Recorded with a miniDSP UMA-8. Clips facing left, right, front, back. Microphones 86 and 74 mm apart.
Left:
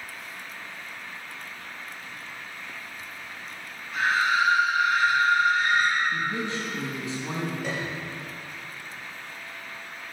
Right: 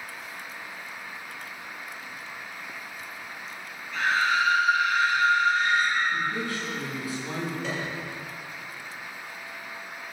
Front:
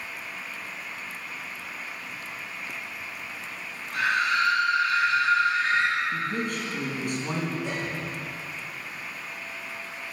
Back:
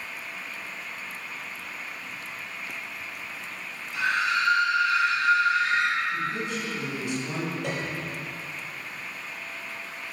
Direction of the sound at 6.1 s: 25° left.